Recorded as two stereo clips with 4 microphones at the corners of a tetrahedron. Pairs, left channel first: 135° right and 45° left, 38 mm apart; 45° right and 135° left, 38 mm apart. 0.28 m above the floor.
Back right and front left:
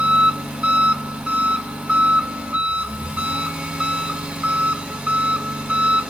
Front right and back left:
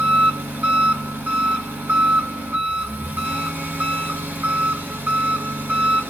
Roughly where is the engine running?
Behind left.